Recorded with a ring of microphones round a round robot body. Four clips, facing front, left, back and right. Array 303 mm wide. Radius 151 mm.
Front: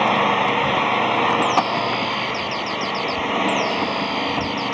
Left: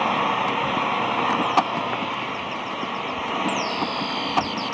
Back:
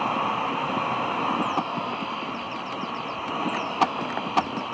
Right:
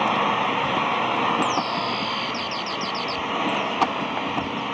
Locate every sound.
0.0 s an engine running: straight ahead